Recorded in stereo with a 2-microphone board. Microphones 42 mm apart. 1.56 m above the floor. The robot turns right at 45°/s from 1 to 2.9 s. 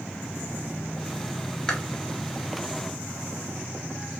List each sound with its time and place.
1.7 s chewing: 15° left (ahead or behind), 0.6 m